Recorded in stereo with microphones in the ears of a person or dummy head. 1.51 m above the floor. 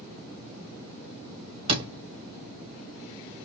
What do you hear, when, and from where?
1.7 s a door slam: 30° right (ahead or behind), 1.4 m